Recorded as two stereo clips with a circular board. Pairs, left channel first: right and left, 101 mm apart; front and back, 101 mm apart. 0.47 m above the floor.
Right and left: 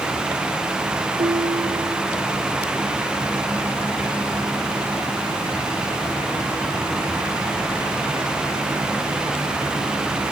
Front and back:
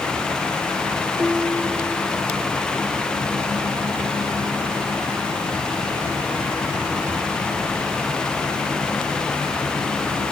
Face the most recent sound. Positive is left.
turn(degrees=100)